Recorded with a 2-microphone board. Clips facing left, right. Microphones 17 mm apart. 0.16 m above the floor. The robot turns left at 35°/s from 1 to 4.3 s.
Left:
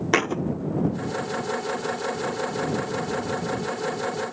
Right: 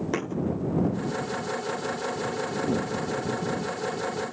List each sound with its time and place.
0.1 s a thud: 50° left (ahead or behind)